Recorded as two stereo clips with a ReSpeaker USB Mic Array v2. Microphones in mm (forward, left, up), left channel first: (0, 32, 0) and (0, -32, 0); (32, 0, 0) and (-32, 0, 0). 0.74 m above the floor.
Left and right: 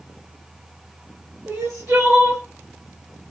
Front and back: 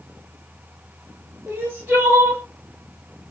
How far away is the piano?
I don't hear a piano.